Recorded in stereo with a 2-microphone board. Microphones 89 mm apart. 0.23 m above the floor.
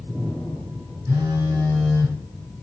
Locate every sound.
1.1 s a phone buzzing: 35° right (ahead or behind), 1.9 m